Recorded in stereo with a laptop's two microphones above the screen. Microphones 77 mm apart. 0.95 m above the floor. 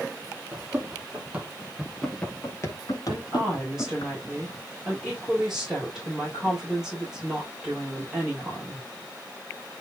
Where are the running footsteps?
35° right (ahead or behind), 2 m; by 4.1 s 70° left (ahead or behind), 2.5 m.